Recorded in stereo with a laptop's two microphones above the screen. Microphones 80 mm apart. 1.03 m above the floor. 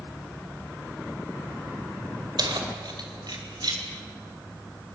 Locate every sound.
2.4 s keys jangling: 65° right (ahead or behind), 2.5 m; by 3.8 s 60° right (ahead or behind), 3.5 m